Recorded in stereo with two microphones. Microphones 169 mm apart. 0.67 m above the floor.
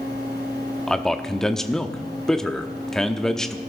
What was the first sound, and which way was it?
A man speaking, 5° left (ahead or behind).